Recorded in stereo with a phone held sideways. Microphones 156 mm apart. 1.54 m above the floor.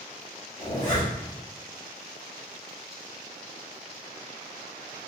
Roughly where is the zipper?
Left.